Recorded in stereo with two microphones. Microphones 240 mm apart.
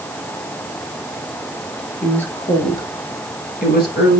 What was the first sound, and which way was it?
A woman speaking, 5° left (ahead or behind).